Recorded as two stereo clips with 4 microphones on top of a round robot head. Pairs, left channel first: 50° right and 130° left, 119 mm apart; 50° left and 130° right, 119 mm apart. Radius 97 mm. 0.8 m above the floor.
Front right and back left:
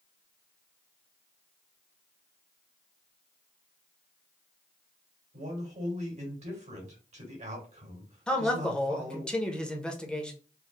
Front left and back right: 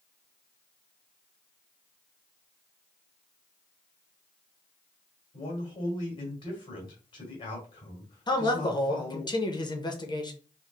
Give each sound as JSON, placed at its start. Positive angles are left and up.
{"t": 5.3, "sound": "a man speaking", "azimuth_deg": 100, "distance_m": 2.5}
{"t": 8.3, "sound": "a man speaking", "azimuth_deg": 30, "distance_m": 1.1}